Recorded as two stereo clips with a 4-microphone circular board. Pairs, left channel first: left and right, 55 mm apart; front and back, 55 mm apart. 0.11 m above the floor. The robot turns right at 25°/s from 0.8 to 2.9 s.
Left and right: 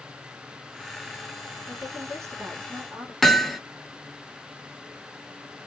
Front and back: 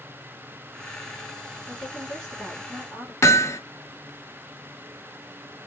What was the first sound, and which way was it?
A woman speaking, 100° right.